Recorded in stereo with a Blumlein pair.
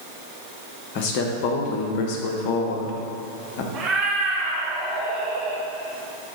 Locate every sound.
0.9 s a man speaking: 45° left, 1.3 m
3.7 s a cat meowing: 25° right, 1.9 m